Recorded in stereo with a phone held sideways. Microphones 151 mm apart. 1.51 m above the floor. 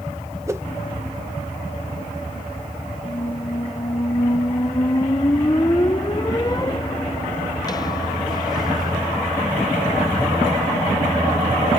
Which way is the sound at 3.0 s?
25° left (ahead or behind).